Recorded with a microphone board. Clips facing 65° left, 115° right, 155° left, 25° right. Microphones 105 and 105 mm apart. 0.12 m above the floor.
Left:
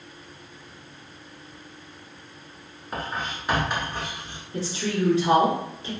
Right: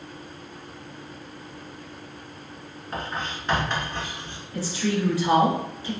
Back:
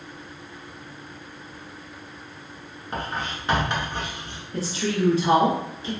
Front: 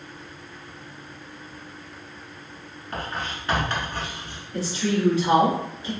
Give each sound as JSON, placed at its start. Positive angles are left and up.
{"t": 2.9, "sound": "writing", "azimuth_deg": 130, "distance_m": 1.1}
{"t": 4.5, "sound": "a woman speaking", "azimuth_deg": 120, "distance_m": 1.5}